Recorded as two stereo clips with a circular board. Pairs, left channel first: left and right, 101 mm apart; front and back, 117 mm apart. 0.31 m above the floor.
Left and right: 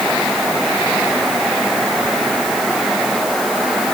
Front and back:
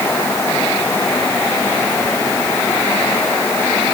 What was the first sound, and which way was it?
Only background noise.